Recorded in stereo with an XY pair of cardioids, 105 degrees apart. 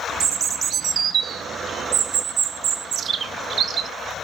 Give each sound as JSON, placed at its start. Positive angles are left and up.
{"t": 0.2, "sound": "a bird", "azimuth_deg": -55, "distance_m": 0.6}